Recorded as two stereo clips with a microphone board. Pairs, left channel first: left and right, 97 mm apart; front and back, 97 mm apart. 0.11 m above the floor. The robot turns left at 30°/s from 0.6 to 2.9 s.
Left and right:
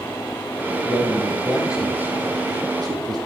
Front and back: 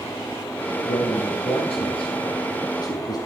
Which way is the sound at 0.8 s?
15° left.